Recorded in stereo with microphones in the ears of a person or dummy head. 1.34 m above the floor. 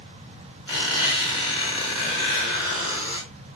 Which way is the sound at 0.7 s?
25° left (ahead or behind).